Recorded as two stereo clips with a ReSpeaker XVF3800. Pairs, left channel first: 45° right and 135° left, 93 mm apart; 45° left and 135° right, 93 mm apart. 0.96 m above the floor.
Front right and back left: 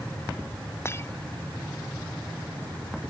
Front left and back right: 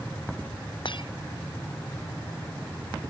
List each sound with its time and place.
0.8 s breaking glass: 15° left